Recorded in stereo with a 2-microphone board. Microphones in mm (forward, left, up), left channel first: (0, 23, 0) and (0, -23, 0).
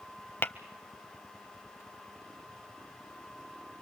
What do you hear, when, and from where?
0.4 s tapping: 55° left (ahead or behind), 0.7 m